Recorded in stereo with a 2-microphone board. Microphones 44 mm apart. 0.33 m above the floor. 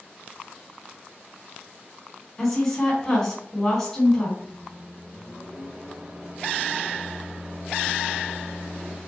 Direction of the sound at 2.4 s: 10° left (ahead or behind).